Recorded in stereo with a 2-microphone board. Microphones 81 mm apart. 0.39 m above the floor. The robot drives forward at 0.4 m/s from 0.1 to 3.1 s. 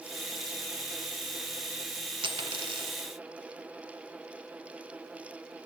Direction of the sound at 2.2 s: 85° right.